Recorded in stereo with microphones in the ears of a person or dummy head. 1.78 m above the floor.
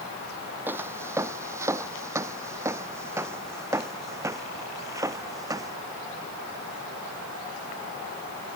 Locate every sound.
0.7 s footsteps: 10° right (ahead or behind); by 5.8 s 15° right (ahead or behind)